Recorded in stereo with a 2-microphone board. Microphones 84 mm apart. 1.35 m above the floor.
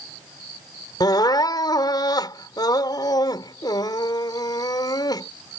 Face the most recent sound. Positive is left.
turn(degrees=55)  # may be behind; listen again after turning